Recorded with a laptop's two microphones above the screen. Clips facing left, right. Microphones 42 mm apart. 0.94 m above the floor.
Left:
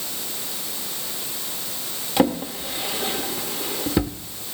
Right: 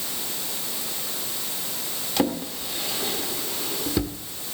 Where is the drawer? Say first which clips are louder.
Left 5 dB; 20° left (ahead or behind), 0.8 m.